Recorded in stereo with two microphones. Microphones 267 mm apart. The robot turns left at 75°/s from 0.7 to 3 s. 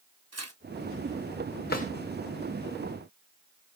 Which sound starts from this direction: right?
Tearing paper, at 0.3 s.